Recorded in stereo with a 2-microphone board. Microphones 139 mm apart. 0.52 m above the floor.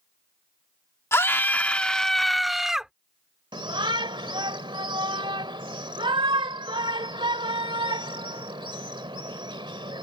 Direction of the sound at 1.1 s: 20° left (ahead or behind).